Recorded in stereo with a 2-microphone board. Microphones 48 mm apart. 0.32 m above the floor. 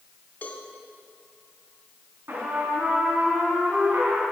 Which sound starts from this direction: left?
A cowbell, at 0.4 s.